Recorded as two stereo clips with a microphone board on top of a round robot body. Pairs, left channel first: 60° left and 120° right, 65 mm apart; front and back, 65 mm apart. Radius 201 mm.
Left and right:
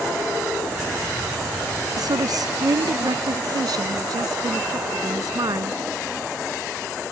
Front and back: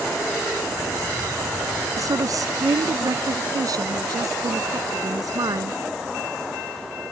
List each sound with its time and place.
2.0 s a woman speaking: 145° right; by 5.8 s 150° right